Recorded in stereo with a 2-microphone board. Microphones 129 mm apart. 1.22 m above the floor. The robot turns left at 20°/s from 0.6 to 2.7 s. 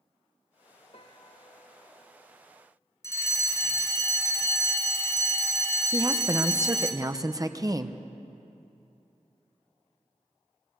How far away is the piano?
About 0.9 m.